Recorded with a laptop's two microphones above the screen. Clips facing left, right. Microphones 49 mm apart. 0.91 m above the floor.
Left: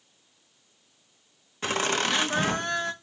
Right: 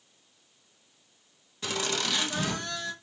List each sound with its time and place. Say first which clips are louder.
1.6 s laughter: left 5 dB; 40° left (ahead or behind), 1.1 m